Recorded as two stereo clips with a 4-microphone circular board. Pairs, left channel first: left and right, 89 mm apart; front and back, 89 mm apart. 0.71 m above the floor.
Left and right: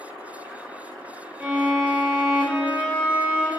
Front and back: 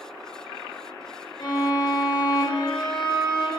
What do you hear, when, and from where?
1.4 s a violin: 15° right, 0.6 m